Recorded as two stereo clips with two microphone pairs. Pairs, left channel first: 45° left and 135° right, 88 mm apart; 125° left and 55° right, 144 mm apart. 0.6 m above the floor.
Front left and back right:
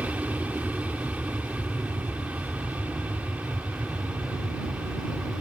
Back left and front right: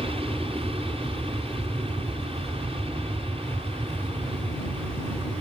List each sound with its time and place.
0.0 s an aircraft: 70° right